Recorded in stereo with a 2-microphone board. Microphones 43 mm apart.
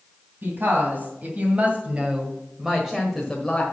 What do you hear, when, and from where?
0.4 s a woman speaking: 50° right (ahead or behind), 2.5 m; by 3.6 s 5° left (ahead or behind), 1.6 m